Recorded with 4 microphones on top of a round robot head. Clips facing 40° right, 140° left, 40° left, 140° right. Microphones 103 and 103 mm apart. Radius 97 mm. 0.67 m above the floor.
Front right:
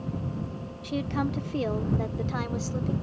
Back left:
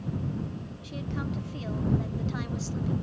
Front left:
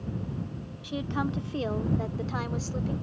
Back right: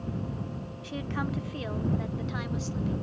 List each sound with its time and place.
0.8 s a woman speaking: 30° right; by 2.9 s straight ahead